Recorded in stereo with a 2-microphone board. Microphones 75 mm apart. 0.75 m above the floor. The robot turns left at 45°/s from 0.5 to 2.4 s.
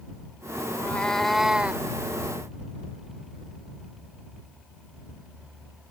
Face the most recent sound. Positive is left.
turn(degrees=-50)